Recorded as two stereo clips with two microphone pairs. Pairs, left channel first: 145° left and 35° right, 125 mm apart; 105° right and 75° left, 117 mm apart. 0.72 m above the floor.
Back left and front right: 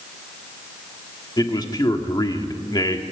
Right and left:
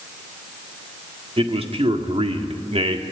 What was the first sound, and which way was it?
A man speaking, 90° left.